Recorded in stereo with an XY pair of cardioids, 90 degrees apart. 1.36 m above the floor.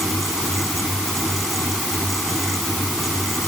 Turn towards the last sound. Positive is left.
turn(degrees=-10)